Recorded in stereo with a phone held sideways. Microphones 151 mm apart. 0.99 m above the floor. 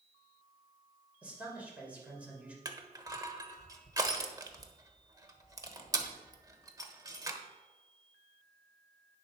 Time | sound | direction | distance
1.2 | a man speaking | 10° right (ahead or behind) | 3.5 m
2.6 | crushing | 25° right (ahead or behind) | 1.1 m